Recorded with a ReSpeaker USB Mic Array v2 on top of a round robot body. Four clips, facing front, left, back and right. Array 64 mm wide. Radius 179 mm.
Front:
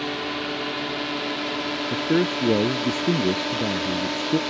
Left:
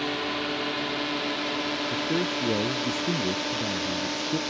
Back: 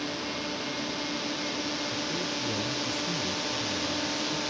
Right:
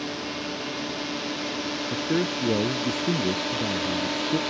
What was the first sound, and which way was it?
A drone, 35° left.